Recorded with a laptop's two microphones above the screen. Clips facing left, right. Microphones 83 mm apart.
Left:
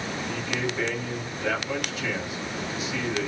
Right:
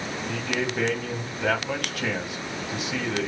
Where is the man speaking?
70° right (ahead or behind), 4.5 m.